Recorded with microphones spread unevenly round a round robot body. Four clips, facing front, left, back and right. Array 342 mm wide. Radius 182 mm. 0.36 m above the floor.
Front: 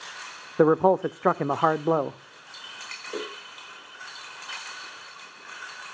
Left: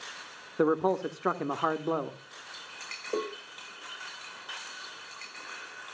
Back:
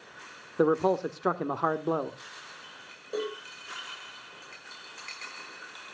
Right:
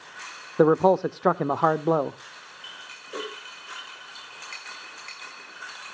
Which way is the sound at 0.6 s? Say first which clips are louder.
Right 8 dB, front 5 dB; 45° right.